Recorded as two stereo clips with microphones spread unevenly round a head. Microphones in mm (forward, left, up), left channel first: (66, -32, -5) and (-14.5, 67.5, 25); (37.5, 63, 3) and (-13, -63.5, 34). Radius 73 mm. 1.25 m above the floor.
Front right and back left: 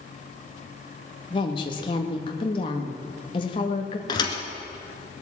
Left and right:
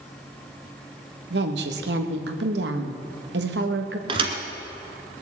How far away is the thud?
About 1.6 m.